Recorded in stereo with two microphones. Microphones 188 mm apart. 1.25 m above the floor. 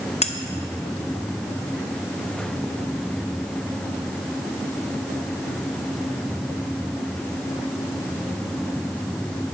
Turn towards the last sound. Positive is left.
turn(degrees=35)  # may be behind; listen again after turning